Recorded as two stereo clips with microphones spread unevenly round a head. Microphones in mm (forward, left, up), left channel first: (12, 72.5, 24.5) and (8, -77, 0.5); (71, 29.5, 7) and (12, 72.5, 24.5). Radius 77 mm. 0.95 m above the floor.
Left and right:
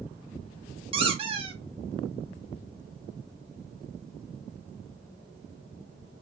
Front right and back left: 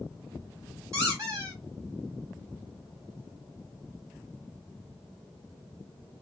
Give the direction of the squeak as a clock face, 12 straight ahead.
5 o'clock.